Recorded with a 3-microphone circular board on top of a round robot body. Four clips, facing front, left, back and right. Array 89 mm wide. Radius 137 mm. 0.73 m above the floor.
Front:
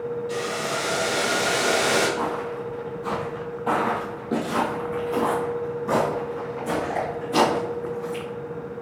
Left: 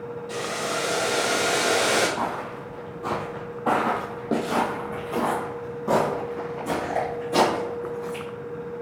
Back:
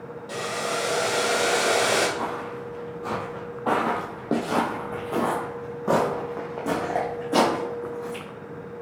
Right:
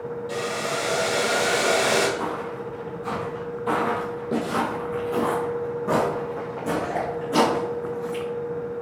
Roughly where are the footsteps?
Left.